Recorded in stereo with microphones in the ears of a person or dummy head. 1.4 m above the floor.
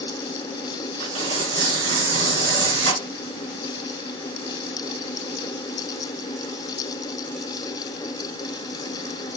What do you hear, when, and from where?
1.0 s tearing paper: 70° right (ahead or behind), 3 m